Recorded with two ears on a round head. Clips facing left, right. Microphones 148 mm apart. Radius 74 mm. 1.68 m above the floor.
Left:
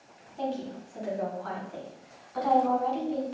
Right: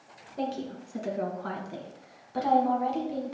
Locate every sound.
0.4 s a woman speaking: 70° right (ahead or behind), 2.5 m; by 3.3 s 10° right (ahead or behind), 1.7 m